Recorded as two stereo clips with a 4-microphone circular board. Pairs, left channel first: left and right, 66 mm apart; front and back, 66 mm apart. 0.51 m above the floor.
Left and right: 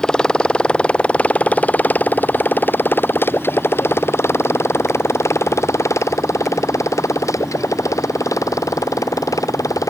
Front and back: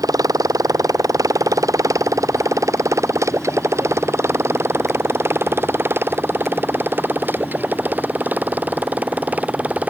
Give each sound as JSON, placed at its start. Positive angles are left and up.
{"t": 0.0, "sound": "a motorcycle", "azimuth_deg": 170}